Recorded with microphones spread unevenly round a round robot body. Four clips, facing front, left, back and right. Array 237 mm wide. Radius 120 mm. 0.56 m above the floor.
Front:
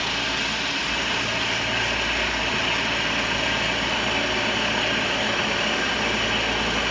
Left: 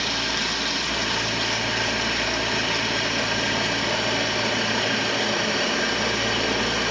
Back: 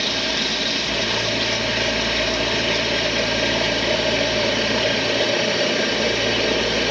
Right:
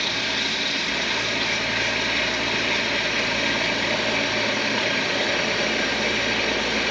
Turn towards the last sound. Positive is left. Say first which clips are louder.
# left 1 dB, back 3 dB
turn(degrees=175)